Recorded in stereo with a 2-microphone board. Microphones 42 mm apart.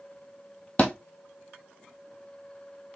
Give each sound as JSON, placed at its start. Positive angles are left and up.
{"t": 0.8, "sound": "a thud", "side_deg": 35, "distance_m": 1.4}